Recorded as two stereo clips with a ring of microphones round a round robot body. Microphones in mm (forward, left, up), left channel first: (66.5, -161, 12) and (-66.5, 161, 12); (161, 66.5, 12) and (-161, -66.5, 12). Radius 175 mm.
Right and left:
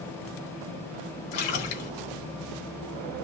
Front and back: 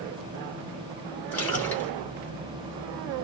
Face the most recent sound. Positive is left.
turn(degrees=-60)